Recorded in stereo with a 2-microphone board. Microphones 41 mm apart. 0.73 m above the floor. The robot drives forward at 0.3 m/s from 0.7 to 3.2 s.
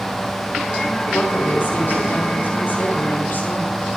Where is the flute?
I don't hear a flute.